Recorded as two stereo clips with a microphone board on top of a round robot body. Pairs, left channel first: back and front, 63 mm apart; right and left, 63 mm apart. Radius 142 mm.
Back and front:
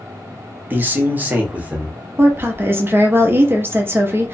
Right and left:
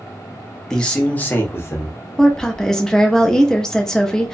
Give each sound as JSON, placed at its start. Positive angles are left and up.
{"t": 0.7, "sound": "a man speaking", "azimuth_deg": -15, "distance_m": 1.0}
{"t": 2.2, "sound": "a woman speaking", "azimuth_deg": -15, "distance_m": 0.8}